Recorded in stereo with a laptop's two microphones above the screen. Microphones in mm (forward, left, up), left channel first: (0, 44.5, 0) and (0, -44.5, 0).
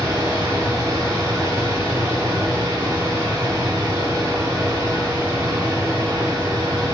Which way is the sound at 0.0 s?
40° right (ahead or behind).